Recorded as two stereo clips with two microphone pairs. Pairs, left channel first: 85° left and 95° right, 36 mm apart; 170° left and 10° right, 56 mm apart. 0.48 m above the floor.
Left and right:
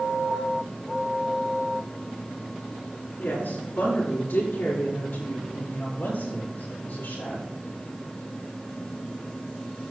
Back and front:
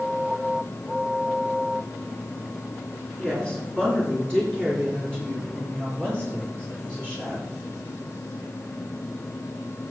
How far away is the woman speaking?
About 4.5 m.